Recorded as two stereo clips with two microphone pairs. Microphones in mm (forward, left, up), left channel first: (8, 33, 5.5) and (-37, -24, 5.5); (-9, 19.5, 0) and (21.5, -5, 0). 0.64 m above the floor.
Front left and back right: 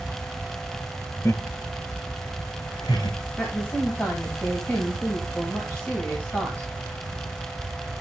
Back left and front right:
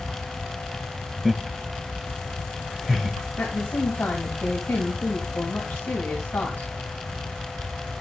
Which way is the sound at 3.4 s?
115° left.